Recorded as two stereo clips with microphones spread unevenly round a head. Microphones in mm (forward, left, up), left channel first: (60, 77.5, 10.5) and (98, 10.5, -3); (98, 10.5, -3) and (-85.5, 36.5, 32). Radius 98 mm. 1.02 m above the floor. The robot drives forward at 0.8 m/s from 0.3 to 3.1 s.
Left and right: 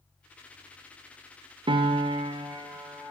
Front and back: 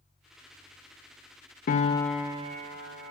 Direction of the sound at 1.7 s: 55° right.